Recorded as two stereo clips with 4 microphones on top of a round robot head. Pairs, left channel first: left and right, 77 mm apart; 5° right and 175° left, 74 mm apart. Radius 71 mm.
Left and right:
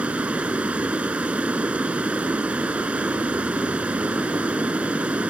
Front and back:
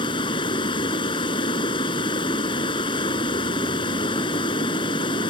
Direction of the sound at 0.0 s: 15° right.